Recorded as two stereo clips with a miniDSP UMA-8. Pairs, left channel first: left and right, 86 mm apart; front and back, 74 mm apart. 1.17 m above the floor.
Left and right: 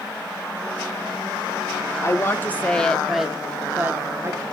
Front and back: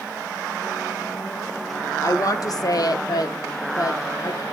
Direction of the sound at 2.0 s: 35° left.